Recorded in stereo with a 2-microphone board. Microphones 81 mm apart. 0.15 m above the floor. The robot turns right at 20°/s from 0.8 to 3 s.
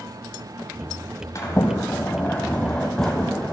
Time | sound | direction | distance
1.4 | a sliding door | 135° left | 1.2 m